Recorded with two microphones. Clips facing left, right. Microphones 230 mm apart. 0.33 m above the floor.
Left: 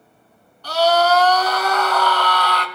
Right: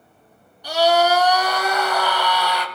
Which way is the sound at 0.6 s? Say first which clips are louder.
Even; 15° right (ahead or behind).